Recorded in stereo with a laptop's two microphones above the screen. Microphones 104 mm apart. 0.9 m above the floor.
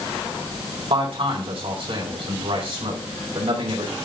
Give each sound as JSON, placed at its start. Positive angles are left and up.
{"t": 0.9, "sound": "a man speaking", "side_deg": -65, "distance_m": 4.0}